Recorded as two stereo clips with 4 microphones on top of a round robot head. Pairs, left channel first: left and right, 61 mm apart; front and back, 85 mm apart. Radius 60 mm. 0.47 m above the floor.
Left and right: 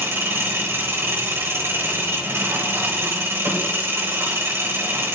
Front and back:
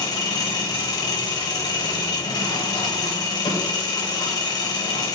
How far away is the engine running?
About 2 m.